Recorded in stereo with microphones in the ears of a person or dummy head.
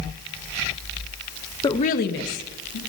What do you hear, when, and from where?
1.6 s a woman speaking: 15° left (ahead or behind), 0.7 m; by 2.8 s 75° left (ahead or behind), 1.8 m